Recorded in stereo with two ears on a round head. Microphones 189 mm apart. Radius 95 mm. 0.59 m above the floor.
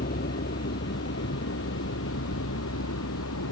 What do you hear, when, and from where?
0.0 s a vehicle: 45° left (ahead or behind); by 3.5 s 80° left